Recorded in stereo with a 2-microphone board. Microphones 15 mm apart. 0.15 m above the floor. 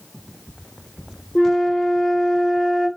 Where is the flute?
45° left (ahead or behind), 2 m.